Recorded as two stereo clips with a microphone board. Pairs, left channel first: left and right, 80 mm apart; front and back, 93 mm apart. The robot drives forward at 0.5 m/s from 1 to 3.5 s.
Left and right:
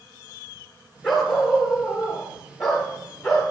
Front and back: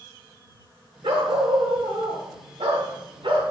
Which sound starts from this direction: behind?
A dog barking, at 1.0 s.